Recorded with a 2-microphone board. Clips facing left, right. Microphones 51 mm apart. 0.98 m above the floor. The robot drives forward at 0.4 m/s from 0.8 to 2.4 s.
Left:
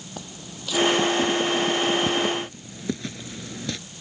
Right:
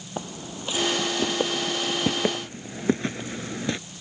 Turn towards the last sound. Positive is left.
turn(degrees=-25)  # may be behind; listen again after turning